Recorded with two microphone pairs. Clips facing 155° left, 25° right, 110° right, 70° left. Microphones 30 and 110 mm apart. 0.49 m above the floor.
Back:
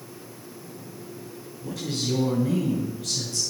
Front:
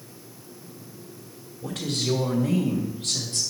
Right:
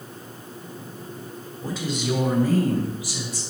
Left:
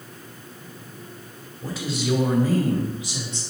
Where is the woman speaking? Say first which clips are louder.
Front 2 dB, even; 20° right, 2.5 m; by 3.4 s 10° left, 3 m.